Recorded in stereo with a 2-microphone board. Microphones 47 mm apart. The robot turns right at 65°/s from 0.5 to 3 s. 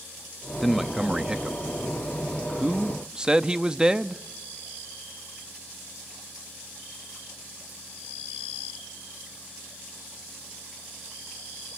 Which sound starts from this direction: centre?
A man speaking, at 0.6 s.